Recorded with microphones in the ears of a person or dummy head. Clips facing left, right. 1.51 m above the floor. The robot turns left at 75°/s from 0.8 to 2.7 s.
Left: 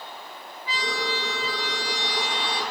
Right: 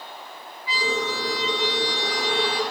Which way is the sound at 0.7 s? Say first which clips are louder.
Right 3 dB; 10° right (ahead or behind).